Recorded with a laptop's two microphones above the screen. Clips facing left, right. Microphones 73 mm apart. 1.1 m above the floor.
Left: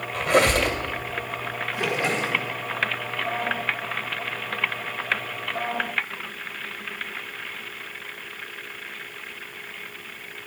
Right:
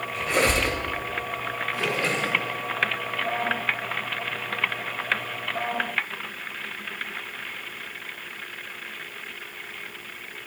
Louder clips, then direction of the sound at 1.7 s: Left 2 dB; 20° left (ahead or behind).